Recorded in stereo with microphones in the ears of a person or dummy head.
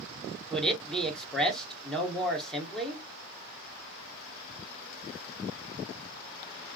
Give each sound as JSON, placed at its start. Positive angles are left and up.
{"t": 0.5, "sound": "a man speaking", "side_deg": 0, "distance_m": 1.0}